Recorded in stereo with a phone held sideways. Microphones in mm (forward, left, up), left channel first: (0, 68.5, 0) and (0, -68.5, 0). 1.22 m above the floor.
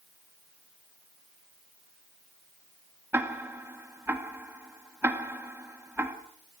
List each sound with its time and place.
3.1 s ticking: 15° right (ahead or behind), 1.9 m